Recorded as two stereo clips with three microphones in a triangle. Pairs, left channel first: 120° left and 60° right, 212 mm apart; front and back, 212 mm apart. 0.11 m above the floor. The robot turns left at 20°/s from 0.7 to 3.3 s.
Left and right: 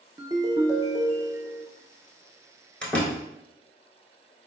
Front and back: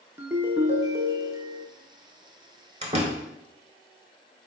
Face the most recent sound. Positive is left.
turn(degrees=-165)